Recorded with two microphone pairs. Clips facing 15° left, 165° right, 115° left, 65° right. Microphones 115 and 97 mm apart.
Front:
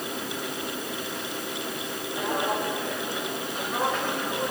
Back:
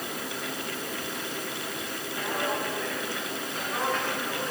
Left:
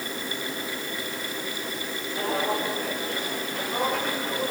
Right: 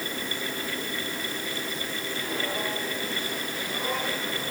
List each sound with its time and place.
2.2 s footsteps: 90° left, 9 m